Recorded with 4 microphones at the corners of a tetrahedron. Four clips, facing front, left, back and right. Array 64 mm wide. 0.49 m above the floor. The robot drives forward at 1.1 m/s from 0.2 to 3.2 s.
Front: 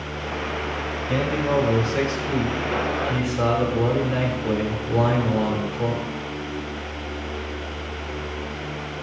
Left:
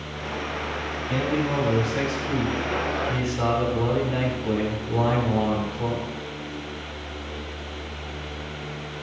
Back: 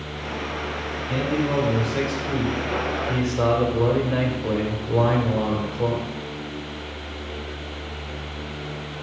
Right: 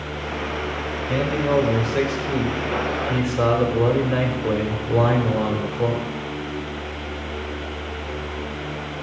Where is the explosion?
No explosion in this recording.